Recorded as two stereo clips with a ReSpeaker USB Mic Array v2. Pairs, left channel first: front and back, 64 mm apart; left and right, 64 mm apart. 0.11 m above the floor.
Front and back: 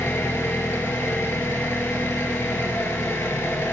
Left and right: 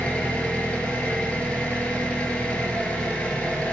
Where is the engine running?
30° left, 0.8 m.